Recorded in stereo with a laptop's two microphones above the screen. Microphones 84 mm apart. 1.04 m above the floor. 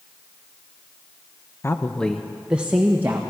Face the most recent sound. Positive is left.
turn(degrees=-25)  # may be behind; listen again after turning